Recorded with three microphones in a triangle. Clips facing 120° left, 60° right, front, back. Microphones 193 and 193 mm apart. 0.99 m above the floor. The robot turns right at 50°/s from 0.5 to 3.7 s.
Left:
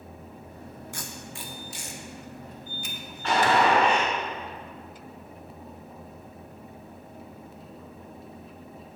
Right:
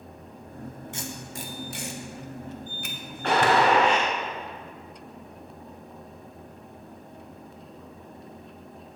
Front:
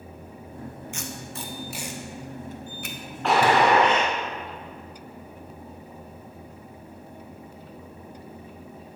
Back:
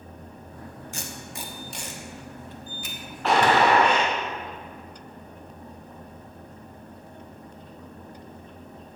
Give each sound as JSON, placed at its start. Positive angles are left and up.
{"t": 0.9, "sound": "tape being pulled", "azimuth_deg": -125, "distance_m": 1.0}
{"t": 3.2, "sound": "a gunshot", "azimuth_deg": -90, "distance_m": 1.5}